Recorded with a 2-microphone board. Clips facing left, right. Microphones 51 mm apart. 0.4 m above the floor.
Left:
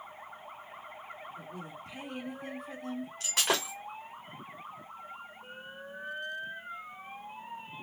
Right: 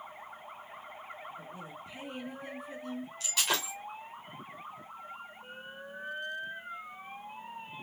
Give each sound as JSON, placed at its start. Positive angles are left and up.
{"t": 1.4, "sound": "a woman speaking", "side_deg": 65, "distance_m": 3.5}
{"t": 3.2, "sound": "breaking glass", "side_deg": 50, "distance_m": 3.5}